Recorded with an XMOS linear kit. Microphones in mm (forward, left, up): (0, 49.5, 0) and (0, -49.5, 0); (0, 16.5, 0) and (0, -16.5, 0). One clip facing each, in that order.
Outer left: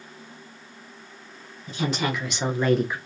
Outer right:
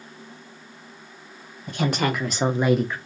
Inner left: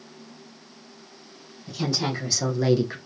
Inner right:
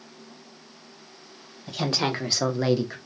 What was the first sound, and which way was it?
A woman speaking, 65° right (ahead or behind).